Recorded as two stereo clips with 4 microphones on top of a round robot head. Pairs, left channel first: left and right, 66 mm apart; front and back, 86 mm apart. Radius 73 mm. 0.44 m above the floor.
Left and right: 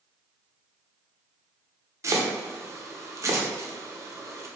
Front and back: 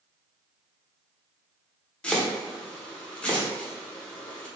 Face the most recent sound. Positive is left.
turn(degrees=-70)